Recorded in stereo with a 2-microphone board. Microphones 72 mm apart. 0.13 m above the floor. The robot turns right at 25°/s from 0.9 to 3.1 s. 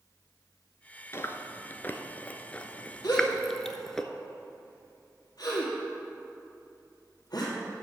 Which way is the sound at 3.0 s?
70° left (ahead or behind).